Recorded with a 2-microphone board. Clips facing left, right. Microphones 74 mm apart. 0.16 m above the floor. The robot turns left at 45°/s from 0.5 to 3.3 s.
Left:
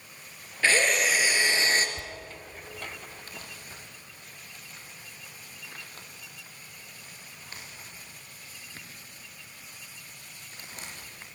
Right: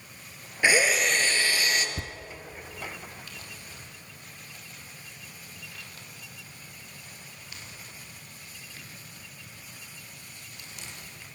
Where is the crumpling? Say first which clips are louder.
Left 1 dB; 35° left (ahead or behind), 5.5 m.